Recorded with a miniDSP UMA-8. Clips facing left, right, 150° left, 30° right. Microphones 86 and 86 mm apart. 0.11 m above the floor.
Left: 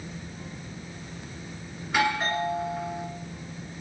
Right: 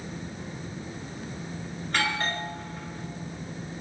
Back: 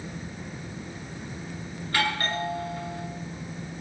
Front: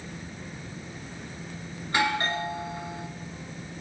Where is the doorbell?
15° left, 2 m.